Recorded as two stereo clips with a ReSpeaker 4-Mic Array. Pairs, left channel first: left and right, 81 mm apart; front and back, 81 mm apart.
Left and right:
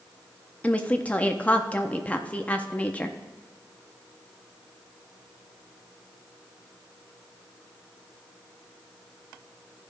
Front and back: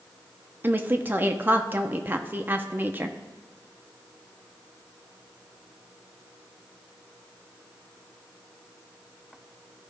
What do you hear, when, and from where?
0.6 s a woman speaking: 145° left, 0.7 m